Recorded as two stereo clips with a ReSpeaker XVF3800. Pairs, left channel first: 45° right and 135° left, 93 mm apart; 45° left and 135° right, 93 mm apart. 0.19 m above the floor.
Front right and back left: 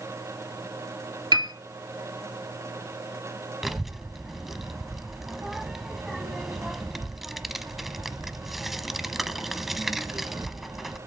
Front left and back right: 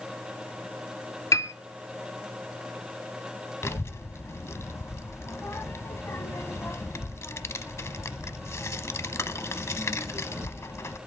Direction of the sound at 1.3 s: 100° left.